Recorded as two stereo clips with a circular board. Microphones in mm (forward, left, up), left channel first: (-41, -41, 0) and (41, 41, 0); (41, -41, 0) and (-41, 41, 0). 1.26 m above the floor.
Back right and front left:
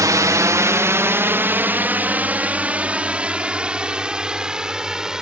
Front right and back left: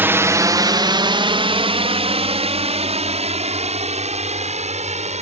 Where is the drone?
80° left; by 5.2 s 130° left.